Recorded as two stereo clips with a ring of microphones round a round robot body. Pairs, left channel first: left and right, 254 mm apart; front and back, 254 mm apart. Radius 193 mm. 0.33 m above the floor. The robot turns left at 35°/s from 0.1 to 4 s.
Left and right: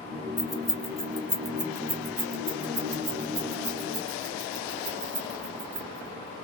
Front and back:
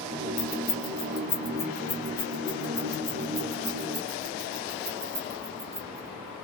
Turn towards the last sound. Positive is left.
turn(degrees=-120)